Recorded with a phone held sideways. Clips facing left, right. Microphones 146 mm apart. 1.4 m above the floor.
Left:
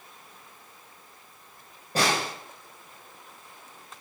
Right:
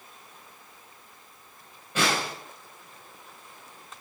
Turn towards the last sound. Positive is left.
turn(degrees=35)  # may be behind; listen again after turning